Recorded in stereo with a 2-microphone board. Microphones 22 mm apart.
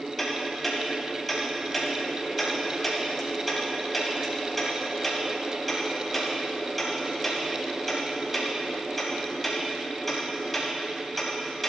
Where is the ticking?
5° left (ahead or behind), 2.5 m.